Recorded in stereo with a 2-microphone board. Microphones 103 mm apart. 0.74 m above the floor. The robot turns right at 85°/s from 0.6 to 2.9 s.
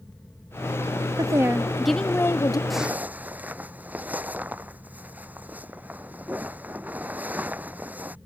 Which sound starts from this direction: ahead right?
A woman speaking, at 1.2 s.